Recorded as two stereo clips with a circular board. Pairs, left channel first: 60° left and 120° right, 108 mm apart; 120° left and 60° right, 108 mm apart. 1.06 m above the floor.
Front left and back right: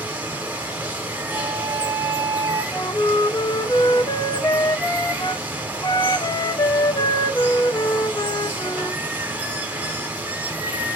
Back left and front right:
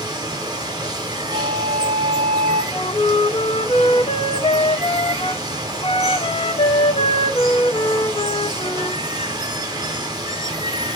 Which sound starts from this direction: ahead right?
Running water, at 0.0 s.